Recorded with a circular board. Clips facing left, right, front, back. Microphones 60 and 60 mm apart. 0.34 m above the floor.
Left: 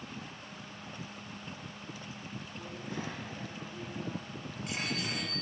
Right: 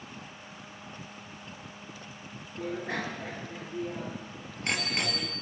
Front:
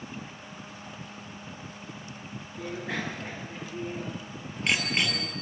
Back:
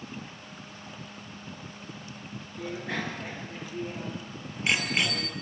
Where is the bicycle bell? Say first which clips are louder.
Right 9 dB, even; 85° right, 3.5 m; by 5.3 s 95° right, 5 m.